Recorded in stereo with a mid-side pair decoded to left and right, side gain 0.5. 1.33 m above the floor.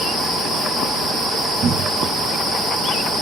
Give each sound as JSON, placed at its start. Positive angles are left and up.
{"t": 1.6, "sound": "a cupboard door", "azimuth_deg": -45, "distance_m": 0.7}